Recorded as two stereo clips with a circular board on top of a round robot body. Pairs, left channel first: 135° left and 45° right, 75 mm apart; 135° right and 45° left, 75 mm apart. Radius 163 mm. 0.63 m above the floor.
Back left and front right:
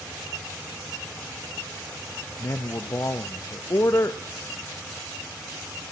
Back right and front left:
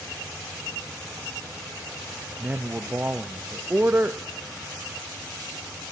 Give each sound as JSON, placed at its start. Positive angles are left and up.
{"t": 2.4, "sound": "a man speaking", "azimuth_deg": 105, "distance_m": 0.6}